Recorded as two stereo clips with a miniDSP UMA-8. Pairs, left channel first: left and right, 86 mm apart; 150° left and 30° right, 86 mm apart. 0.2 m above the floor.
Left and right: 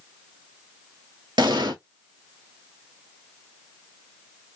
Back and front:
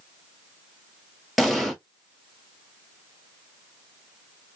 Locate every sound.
1.4 s an explosion: 120° right, 0.8 m